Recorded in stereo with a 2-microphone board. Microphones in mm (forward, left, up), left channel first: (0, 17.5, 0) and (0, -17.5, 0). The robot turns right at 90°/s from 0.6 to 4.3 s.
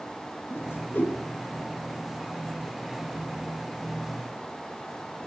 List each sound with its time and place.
0.5 s a whoosh: 70° left (ahead or behind), 5 m; by 1.2 s 60° left (ahead or behind), 5 m